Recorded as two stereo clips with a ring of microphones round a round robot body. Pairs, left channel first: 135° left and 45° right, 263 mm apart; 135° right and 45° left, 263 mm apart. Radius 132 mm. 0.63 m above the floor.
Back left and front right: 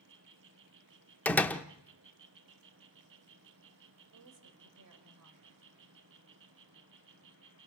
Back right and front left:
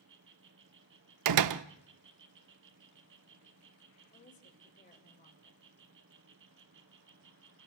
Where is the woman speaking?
75° right, 3.5 m.